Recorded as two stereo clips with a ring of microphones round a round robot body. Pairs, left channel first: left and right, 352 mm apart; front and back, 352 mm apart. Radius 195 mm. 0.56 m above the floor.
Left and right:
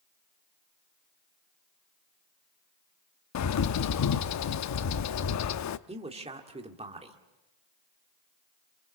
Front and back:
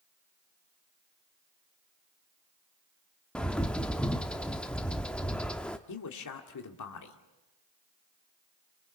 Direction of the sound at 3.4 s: 85° left.